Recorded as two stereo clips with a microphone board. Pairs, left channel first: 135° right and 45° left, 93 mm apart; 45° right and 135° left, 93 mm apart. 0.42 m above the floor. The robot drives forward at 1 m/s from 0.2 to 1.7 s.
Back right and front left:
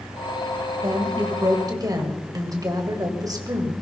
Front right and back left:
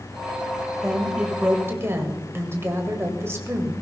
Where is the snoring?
No snoring in this recording.